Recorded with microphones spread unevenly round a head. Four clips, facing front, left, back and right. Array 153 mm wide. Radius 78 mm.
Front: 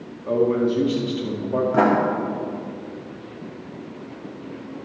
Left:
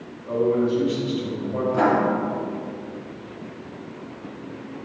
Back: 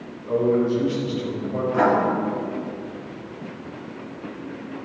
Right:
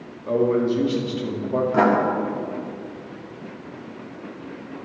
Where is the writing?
35° right, 1.5 m.